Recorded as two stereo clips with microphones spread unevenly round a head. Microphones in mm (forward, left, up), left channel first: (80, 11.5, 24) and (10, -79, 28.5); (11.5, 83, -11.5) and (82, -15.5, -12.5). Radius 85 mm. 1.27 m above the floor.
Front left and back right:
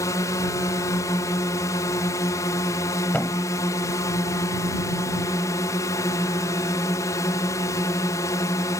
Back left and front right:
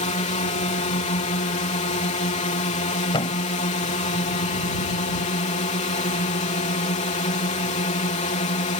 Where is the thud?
130° left.